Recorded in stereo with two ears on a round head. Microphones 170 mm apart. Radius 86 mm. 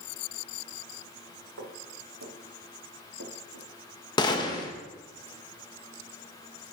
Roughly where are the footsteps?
Right.